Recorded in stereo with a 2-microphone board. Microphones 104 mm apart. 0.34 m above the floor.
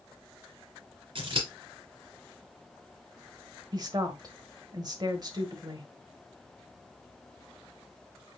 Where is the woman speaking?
40° right (ahead or behind), 1.1 m.